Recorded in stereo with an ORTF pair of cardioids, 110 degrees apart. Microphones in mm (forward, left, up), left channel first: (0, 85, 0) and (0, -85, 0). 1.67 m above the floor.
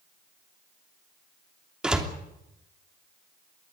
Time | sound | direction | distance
1.8 | a door slam | 5° right | 3 m